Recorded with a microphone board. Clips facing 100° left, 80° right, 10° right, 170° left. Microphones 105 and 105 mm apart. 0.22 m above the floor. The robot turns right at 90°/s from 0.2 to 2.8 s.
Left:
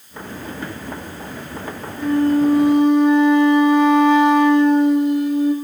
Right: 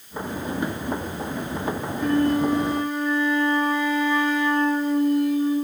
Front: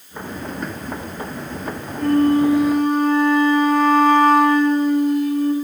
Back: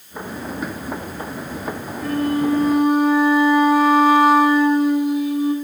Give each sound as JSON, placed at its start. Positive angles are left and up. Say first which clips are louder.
{"t": 2.0, "sound": "a flute", "louder": "left 5 dB, front 6 dB", "azimuth_deg": 15, "distance_m": 1.6}